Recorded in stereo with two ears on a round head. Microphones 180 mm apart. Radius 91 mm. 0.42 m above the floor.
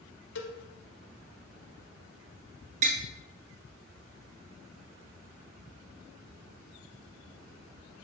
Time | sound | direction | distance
0.3 | a cowbell | 60° left (ahead or behind) | 1.0 m
2.8 | tapping | 40° right (ahead or behind) | 1.0 m